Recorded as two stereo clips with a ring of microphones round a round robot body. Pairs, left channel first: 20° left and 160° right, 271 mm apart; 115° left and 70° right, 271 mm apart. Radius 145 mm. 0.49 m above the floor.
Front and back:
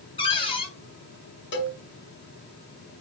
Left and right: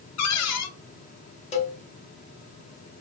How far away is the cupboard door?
About 0.8 m.